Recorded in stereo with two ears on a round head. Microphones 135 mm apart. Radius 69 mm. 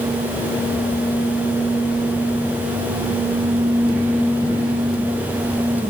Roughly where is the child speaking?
I don't hear a child speaking.